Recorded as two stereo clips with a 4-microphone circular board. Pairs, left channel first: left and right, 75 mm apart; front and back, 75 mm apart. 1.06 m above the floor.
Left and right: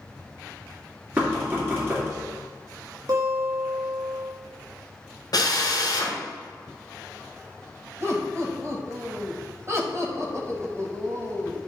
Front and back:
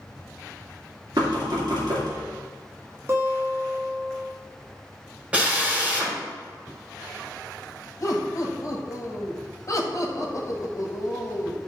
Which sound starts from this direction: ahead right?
Laughter, at 8.0 s.